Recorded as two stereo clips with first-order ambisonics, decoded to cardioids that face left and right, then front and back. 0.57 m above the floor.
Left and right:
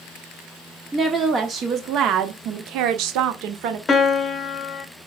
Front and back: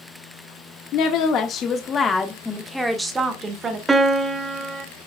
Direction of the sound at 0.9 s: 15° right.